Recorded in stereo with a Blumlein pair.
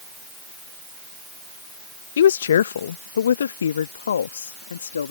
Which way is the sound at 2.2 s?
65° left.